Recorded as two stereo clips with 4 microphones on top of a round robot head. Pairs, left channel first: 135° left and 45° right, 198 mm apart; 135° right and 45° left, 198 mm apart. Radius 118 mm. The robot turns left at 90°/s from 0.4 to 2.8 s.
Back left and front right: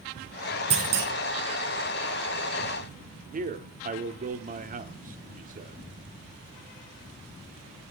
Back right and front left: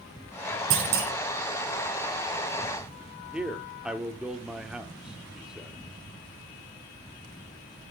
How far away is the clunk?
About 5.5 m.